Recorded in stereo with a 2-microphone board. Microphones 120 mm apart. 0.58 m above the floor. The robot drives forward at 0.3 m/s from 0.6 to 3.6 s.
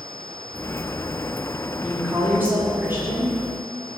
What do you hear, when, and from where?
1.8 s a woman speaking: 15° right (ahead or behind), 1.0 m; by 3.4 s 20° right (ahead or behind), 0.8 m